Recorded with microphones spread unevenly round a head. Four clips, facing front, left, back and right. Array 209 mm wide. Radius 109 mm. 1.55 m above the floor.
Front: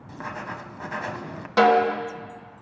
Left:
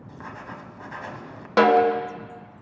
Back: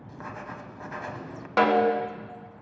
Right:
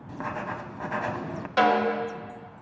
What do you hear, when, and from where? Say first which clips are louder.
0.1 s writing: right 6 dB, front 5 dB; 60° right, 0.9 m
1.6 s a snare drum: left 5 dB, front 3 dB; 75° left, 1.5 m